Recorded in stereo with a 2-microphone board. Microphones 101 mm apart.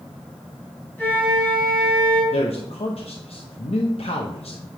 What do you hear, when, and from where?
1.0 s a flute: 20° left (ahead or behind), 4 m
2.3 s a man speaking: 80° left, 0.7 m